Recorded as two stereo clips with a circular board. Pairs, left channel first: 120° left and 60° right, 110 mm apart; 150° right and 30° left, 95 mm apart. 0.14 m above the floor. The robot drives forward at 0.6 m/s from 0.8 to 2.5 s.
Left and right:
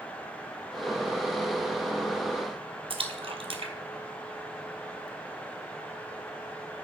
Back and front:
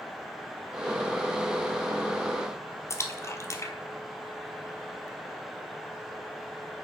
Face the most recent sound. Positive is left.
turn(degrees=-90)